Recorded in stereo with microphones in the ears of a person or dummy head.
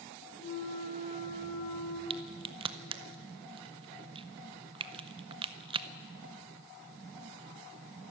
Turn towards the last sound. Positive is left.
turn(degrees=-30)  # may be behind; listen again after turning